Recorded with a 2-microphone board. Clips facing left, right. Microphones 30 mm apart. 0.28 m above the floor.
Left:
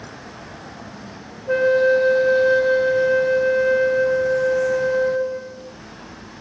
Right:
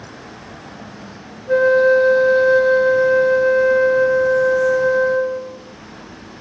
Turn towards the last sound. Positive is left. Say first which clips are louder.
# right 3 dB
turn(degrees=45)  # may be behind; listen again after turning